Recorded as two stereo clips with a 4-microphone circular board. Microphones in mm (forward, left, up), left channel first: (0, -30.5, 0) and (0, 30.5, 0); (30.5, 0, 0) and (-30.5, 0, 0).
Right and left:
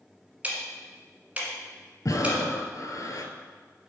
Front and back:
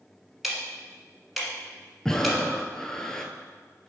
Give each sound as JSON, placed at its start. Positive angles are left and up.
{"t": 0.4, "sound": "ticking", "azimuth_deg": 95, "distance_m": 1.5}
{"t": 2.0, "sound": "breathing", "azimuth_deg": -80, "distance_m": 0.6}